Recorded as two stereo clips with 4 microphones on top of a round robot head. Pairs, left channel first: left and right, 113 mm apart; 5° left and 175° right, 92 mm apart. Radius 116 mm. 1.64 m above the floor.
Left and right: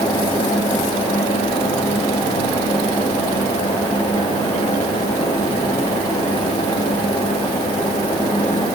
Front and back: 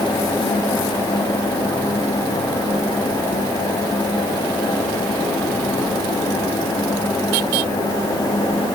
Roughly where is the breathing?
I don't hear breathing.